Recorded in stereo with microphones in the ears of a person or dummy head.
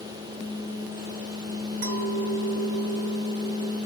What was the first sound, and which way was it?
A clink, 75° right (ahead or behind).